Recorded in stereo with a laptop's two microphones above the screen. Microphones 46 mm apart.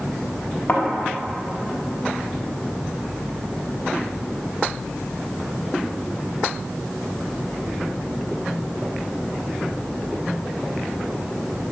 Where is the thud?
30° left (ahead or behind), 0.9 m.